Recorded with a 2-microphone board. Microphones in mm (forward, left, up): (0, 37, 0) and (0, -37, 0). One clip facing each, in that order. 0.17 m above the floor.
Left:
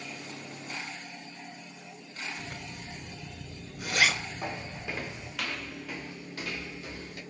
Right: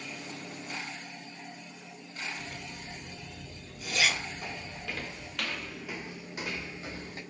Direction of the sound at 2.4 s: 60° left (ahead or behind).